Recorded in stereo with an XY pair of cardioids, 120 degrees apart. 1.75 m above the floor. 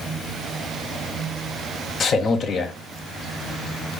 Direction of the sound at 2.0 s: 45° left.